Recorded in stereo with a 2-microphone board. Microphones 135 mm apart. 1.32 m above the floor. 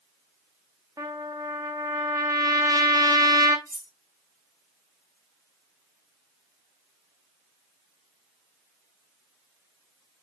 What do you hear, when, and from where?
1.0 s a trumpet: 30° right (ahead or behind), 0.6 m
3.7 s cutlery clinking: 25° right (ahead or behind), 1.1 m